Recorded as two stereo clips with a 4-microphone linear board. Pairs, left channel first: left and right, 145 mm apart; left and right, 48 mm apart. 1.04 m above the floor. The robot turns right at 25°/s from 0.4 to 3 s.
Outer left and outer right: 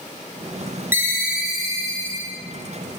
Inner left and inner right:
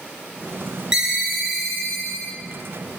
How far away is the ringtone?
About 1.0 m.